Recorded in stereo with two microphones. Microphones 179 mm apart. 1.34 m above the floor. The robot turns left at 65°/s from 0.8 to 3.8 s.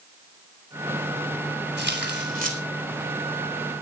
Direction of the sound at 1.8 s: 80° right.